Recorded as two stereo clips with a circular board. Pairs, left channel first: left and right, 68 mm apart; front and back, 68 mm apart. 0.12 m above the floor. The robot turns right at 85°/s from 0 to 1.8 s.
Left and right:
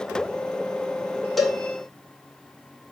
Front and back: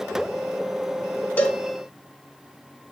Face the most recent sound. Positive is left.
turn(degrees=40)